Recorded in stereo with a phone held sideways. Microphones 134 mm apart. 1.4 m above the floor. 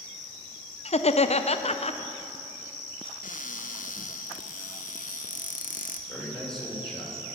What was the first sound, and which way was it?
Laughter, 50° left (ahead or behind).